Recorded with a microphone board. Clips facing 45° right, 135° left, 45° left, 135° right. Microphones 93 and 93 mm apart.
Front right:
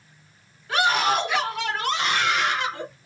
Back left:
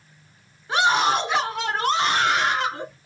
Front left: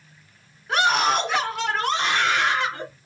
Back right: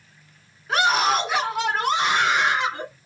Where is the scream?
135° left, 1.8 m; by 2.9 s 155° left, 2.5 m.